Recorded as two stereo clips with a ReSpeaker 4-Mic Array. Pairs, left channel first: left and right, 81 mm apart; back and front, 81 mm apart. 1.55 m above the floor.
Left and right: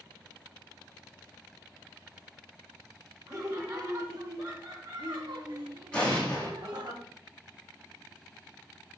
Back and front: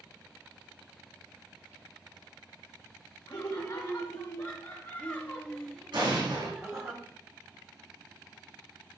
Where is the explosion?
10° left, 3.5 m.